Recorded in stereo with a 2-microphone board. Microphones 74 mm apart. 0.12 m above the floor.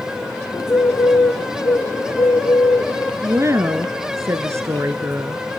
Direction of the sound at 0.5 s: 50° left (ahead or behind).